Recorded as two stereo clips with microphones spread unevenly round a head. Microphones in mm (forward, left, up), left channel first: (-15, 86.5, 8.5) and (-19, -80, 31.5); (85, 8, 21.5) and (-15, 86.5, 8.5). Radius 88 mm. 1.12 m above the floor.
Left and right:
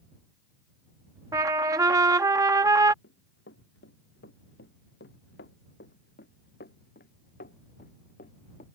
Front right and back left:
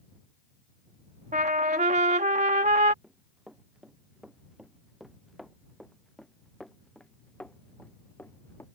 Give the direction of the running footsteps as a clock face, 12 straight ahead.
10 o'clock.